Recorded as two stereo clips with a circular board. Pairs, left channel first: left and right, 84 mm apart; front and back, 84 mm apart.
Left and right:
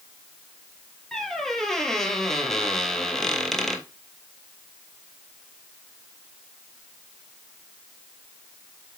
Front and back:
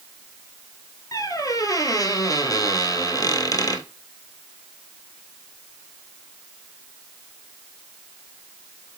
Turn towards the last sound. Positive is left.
turn(degrees=5)